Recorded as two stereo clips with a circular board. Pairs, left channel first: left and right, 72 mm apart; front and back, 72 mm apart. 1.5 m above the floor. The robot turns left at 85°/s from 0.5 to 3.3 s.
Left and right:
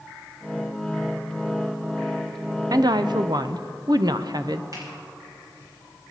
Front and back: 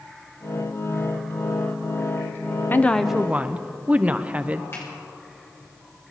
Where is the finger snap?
55° right, 6 m.